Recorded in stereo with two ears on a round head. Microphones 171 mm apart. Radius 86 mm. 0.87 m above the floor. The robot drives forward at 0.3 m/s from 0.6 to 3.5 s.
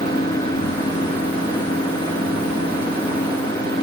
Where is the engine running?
20° left (ahead or behind).